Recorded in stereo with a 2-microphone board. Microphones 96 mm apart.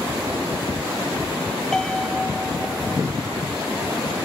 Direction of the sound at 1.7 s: 10° left (ahead or behind).